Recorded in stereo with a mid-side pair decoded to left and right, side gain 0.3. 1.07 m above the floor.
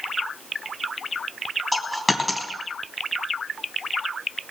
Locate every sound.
1.7 s a dropped coin: 15° left, 3 m